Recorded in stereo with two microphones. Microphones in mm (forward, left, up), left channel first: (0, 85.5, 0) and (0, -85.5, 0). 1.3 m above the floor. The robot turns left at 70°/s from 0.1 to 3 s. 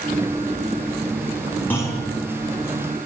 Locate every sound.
1.7 s a clunk: 10° left (ahead or behind), 4.5 m; by 2.0 s 35° left (ahead or behind), 4.5 m